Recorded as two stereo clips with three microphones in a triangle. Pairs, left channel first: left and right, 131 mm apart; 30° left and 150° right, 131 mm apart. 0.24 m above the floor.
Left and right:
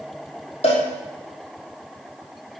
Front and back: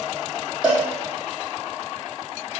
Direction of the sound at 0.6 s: 130° left.